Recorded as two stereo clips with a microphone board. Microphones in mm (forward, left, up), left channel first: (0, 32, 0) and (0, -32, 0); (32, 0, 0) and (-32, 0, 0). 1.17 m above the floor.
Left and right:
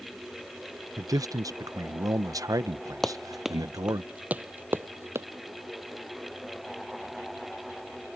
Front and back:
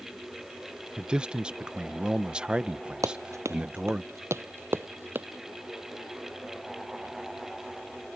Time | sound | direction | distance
1.0 | a man speaking | 105° right | ?
3.0 | running footsteps | 175° left | ?